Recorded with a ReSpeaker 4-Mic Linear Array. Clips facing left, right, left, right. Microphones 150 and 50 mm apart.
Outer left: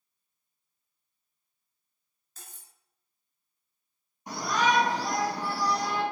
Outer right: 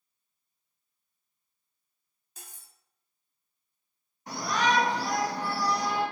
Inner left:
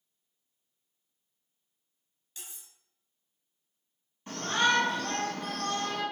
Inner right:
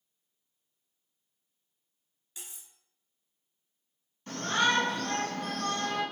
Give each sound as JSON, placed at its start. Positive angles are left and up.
{"t": 2.4, "sound": "cutlery clinking", "side_deg": -15, "distance_m": 0.5}
{"t": 4.3, "sound": "a shout", "side_deg": 20, "distance_m": 2.0}